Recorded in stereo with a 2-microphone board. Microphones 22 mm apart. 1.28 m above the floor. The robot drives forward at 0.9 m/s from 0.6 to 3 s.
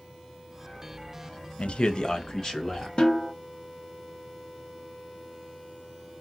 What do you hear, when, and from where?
1.6 s a man speaking: 60° left (ahead or behind), 0.6 m; by 2.9 s 20° left (ahead or behind), 1.5 m
3.0 s a snare drum: 50° left (ahead or behind), 1.1 m; by 3.3 s 45° left (ahead or behind), 1.1 m